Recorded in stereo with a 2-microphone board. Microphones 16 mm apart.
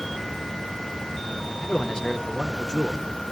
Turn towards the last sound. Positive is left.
turn(degrees=55)  # may be behind; listen again after turning